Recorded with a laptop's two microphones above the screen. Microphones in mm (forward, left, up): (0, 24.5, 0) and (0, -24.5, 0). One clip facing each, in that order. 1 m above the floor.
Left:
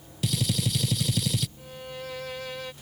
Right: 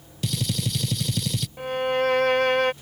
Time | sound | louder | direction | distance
0.2 | a gunshot | even | centre (ahead or behind) | ?
1.6 | a violin | right 16 dB | 65° right (ahead or behind) | ?